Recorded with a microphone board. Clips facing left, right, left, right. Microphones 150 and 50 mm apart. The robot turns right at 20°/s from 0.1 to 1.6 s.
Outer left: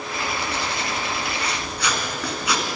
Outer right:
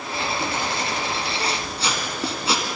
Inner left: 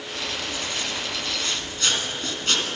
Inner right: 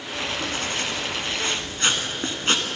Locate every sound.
0.1 s writing: 60° right (ahead or behind), 3 m; by 2.7 s 30° right (ahead or behind), 3 m